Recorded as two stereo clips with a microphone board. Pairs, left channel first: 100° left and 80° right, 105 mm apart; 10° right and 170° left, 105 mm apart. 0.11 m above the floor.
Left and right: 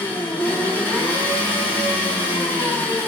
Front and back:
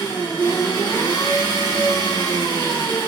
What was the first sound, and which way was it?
An engine running, 30° left.